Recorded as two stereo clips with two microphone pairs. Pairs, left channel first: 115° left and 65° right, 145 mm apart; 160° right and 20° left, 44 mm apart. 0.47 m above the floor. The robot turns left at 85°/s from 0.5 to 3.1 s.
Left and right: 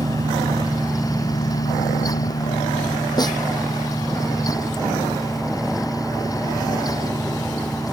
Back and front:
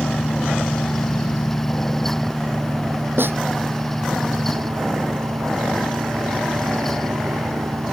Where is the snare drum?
55° left.